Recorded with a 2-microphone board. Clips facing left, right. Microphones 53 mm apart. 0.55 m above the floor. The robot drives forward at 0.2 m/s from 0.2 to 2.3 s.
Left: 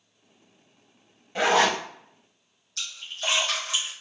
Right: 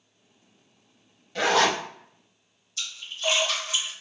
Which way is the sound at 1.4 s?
20° left (ahead or behind).